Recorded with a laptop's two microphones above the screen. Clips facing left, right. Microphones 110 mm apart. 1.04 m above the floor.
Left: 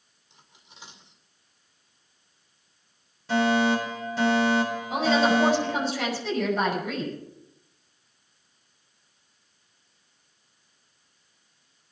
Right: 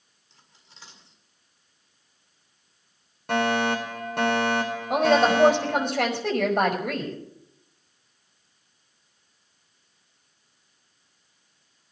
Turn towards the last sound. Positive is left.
turn(degrees=-60)  # may be behind; listen again after turning